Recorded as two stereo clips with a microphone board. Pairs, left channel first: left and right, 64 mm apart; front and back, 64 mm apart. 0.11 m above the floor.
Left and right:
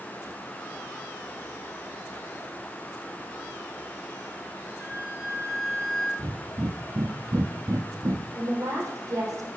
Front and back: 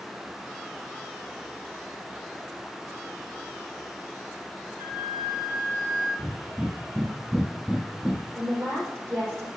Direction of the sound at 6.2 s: 100° right.